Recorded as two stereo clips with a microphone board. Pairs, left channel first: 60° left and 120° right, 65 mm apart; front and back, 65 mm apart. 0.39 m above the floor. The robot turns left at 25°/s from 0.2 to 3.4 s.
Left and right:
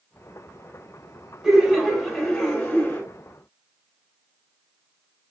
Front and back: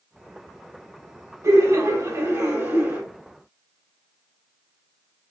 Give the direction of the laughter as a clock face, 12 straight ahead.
7 o'clock.